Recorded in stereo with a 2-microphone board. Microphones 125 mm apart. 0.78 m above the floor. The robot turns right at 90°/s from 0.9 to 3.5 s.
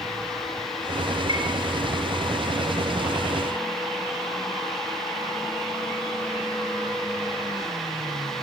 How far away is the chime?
About 5 m.